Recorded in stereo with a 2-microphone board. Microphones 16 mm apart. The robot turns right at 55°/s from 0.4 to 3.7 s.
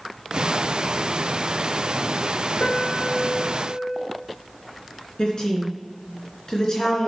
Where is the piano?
55° left, 1.2 m; by 4.0 s 115° left, 1.2 m.